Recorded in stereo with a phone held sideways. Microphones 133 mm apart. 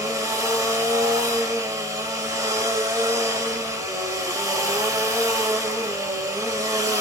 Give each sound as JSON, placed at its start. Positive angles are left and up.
{"t": 0.0, "sound": "a machine running", "side_deg": -25, "distance_m": 0.9}